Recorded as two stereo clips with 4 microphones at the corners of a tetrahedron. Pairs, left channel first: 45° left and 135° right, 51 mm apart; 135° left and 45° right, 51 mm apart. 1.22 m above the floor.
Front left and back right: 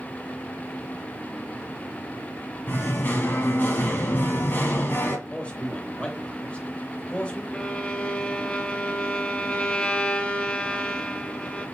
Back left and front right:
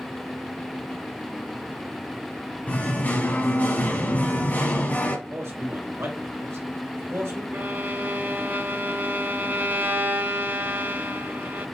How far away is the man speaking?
About 2 m.